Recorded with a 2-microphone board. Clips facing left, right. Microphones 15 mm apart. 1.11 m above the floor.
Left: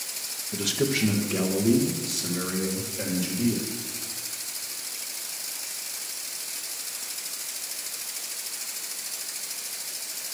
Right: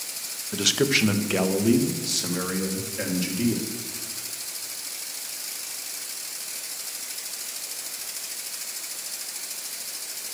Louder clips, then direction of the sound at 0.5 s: Right 4 dB; 70° right (ahead or behind).